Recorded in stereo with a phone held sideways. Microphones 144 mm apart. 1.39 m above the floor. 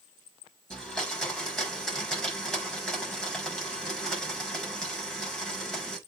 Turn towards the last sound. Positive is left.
turn(degrees=5)  # may be behind; listen again after turning